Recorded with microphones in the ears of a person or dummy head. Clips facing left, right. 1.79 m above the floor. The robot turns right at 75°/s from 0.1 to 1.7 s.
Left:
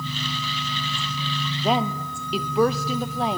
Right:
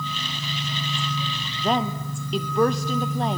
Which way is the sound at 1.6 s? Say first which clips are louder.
Even; 5° left (ahead or behind).